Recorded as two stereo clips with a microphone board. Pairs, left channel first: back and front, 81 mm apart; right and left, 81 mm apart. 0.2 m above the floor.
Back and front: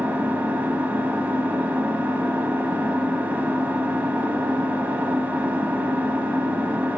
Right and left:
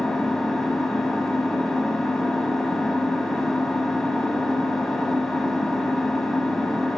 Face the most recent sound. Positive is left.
turn(degrees=-15)